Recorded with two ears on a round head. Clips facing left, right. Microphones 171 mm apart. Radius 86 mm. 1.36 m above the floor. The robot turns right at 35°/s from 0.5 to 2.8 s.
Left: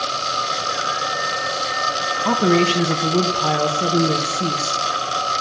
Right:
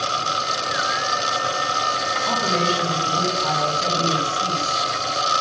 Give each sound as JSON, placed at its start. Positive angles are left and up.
{"t": 2.2, "sound": "a woman speaking", "side_deg": 70, "distance_m": 1.8}